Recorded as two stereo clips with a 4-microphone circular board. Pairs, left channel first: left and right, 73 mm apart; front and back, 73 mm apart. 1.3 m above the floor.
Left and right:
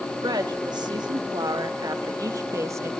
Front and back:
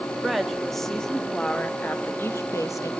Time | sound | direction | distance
0.2 | a woman speaking | 90° right | 2.5 m